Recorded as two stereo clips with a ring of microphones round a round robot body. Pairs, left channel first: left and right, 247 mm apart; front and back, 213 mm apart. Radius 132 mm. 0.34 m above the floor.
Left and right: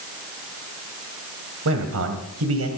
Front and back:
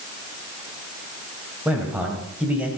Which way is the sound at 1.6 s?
95° right.